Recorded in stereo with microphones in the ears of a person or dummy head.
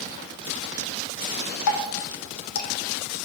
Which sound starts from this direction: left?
Dripping, at 1.7 s.